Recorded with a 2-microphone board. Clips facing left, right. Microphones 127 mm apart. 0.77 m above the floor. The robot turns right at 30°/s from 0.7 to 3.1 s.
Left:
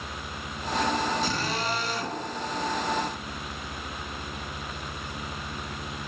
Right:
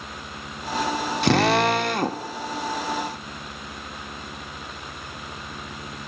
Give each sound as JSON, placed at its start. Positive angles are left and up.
{"t": 1.2, "sound": "a drill", "azimuth_deg": -90, "distance_m": 0.7}